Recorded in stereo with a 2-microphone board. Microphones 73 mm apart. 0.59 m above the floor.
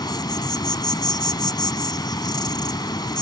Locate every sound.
0.0 s an insect: 75° left (ahead or behind)